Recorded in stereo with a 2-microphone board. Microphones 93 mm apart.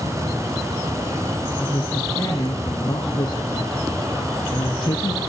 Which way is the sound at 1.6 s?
45° left (ahead or behind).